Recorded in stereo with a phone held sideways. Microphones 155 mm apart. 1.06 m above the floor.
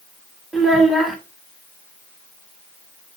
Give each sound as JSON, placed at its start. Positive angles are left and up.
{"t": 0.5, "sound": "a child speaking", "side_deg": 0, "distance_m": 1.4}